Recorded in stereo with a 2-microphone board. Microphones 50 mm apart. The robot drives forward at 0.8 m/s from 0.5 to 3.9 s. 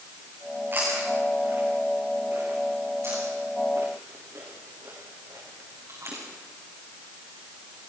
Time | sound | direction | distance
0.7 | chewing | 45° right (ahead or behind) | 8 m